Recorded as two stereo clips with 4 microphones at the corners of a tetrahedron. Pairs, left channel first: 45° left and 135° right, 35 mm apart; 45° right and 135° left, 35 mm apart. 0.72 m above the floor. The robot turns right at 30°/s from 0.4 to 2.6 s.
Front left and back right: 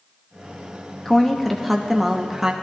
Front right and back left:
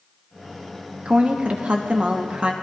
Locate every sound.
1.1 s a woman speaking: 115° left, 0.9 m; by 2.5 s 160° left, 0.9 m